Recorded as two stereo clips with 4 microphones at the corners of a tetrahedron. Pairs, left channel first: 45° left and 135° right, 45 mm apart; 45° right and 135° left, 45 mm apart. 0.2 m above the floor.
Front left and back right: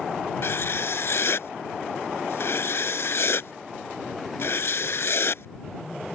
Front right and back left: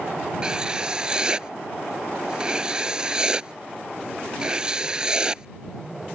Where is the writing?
65° left.